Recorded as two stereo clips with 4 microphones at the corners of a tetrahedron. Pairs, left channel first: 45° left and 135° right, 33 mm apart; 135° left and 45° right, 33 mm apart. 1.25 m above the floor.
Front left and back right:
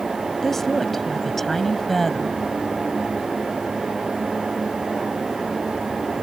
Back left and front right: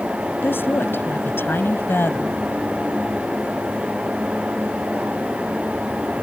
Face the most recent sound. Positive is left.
turn(degrees=130)